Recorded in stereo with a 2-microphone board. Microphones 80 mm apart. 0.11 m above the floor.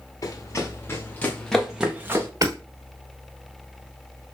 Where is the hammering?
50° right (ahead or behind), 1.1 m.